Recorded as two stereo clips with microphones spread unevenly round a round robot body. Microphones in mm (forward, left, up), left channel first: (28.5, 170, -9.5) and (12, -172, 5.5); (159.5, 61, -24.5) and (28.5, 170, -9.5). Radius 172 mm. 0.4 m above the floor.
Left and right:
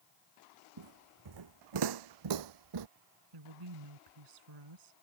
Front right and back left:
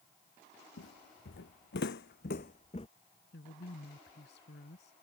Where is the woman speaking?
80° right.